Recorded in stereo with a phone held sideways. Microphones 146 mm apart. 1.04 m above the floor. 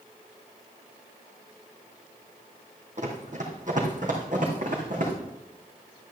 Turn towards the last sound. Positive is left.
turn(degrees=-65)  # may be behind; listen again after turning